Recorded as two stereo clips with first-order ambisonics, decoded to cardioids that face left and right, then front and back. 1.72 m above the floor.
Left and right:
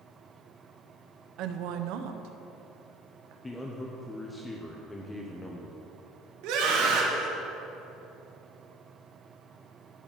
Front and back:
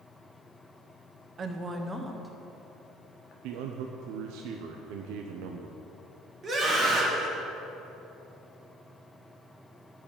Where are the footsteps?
No footsteps in this recording.